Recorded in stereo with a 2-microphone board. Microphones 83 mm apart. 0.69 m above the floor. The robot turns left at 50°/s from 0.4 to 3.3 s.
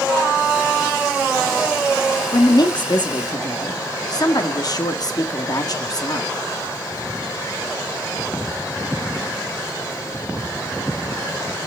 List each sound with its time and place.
2.3 s a woman speaking: 110° left, 1.1 m; by 6.3 s 65° left, 1.1 m